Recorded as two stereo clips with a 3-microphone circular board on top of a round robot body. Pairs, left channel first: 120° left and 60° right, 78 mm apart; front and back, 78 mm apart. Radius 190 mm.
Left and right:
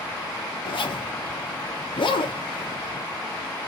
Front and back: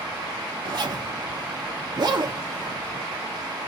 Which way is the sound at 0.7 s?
145° left.